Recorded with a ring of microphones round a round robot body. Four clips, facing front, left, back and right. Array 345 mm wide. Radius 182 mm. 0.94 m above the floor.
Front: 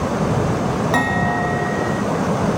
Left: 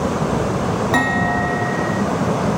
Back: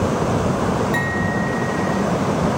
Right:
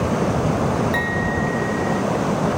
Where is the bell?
55° left.